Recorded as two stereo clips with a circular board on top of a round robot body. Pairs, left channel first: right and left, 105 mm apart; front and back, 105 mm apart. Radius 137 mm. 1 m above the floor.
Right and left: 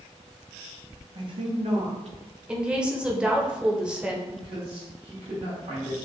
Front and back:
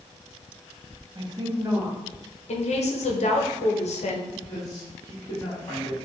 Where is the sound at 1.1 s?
135° left, 1.2 m; by 2.2 s 95° left, 1.3 m.